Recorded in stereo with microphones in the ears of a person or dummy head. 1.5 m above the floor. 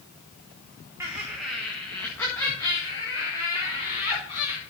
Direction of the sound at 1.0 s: 15° right (ahead or behind).